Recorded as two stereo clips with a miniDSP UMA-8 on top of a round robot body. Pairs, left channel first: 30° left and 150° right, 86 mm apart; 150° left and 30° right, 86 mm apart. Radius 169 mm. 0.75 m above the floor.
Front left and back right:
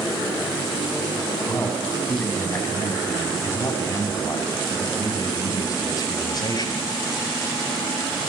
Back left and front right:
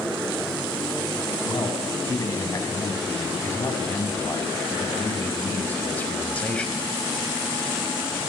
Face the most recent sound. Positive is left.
turn(degrees=70)